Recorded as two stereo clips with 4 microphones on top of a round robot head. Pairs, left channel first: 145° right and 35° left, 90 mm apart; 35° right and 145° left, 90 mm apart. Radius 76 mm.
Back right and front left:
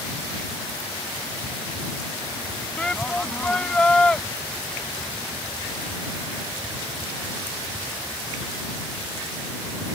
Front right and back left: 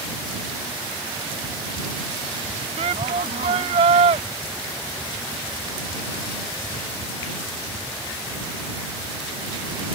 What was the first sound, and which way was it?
A shout, 135° left.